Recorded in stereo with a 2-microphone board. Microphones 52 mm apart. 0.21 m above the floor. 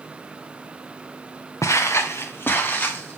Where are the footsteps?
75° left (ahead or behind), 1.4 m; by 3.2 s 30° left (ahead or behind), 2.5 m.